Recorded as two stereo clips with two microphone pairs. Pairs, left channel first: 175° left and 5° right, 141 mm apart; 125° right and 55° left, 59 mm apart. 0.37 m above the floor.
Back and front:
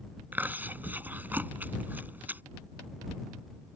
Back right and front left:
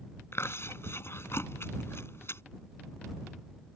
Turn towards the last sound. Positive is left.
turn(degrees=-85)